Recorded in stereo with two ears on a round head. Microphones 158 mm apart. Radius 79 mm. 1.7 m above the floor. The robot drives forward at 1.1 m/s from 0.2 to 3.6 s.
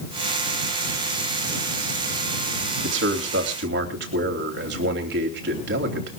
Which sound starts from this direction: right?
A man speaking, at 2.8 s.